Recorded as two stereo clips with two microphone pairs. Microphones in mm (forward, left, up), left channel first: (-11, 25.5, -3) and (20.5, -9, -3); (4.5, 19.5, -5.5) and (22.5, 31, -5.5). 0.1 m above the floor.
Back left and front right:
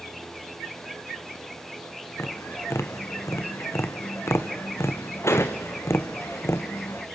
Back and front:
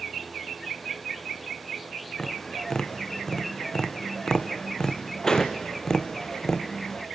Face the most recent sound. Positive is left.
turn(degrees=145)